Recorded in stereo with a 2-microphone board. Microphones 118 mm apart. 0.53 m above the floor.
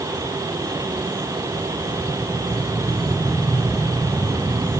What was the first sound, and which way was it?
Only background noise.